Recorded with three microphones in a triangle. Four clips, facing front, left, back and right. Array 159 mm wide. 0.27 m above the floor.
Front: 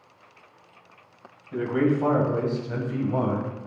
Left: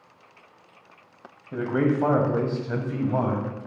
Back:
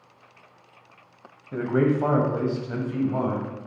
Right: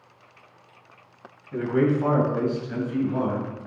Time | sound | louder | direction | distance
1.5 | a man speaking | right 1 dB, back 1 dB | 135° left | 1.8 m